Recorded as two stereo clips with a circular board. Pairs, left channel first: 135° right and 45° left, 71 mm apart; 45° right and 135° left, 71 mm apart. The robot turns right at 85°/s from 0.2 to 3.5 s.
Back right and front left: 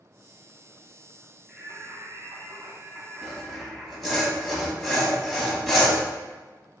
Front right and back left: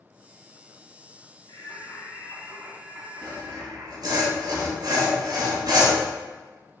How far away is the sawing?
About 1.4 m.